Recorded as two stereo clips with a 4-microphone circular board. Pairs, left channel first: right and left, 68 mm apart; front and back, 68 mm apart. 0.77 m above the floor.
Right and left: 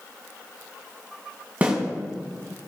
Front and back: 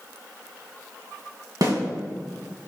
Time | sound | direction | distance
1.6 | a snare drum | 160° left | 2.5 m